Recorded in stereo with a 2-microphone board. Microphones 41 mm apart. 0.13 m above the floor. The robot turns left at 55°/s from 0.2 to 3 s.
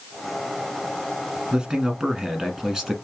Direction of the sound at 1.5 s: 20° right (ahead or behind).